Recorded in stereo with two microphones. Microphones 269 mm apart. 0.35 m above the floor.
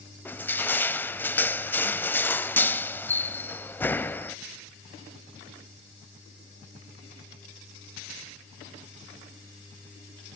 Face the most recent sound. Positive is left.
turn(degrees=5)  # may be behind; listen again after turning